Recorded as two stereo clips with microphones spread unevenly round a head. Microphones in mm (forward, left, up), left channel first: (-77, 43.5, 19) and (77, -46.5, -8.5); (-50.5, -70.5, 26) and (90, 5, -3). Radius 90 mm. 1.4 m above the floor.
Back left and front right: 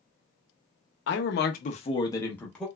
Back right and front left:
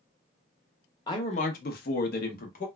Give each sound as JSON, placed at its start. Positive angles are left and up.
{"t": 1.1, "sound": "a man speaking", "azimuth_deg": 145, "distance_m": 0.8}